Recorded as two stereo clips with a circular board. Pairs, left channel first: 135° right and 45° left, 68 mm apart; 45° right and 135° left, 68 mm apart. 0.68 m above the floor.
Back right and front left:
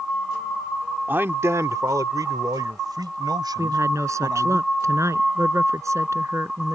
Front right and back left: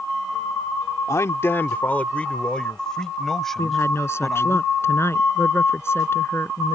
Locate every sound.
1.1 s a man speaking: 10° right; by 4.6 s 45° left
3.6 s a woman speaking: 5° left